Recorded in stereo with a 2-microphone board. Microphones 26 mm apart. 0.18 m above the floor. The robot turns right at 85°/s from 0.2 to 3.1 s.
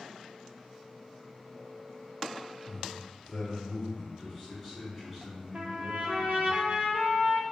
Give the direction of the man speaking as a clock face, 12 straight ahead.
3 o'clock.